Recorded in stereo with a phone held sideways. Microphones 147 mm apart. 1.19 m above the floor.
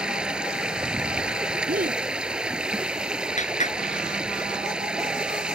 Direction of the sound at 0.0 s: 5° right (ahead or behind).